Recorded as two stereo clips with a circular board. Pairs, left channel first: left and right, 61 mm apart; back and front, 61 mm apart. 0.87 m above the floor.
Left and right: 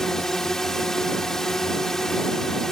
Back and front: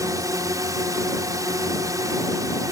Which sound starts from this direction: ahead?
A drone, at 0.0 s.